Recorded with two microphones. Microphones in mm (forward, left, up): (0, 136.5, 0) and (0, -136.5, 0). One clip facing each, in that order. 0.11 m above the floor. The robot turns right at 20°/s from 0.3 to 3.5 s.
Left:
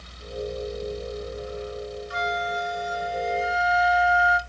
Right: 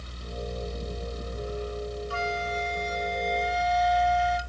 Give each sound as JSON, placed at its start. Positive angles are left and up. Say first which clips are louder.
{"t": 2.1, "sound": "a flute", "louder": "left 1 dB", "side_deg": 20, "distance_m": 0.5}